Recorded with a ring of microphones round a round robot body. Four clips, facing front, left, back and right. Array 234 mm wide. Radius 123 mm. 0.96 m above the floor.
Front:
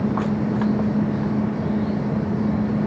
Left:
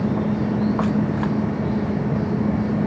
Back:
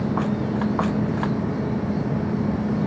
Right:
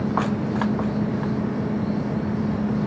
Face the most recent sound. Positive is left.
No sound to turn to.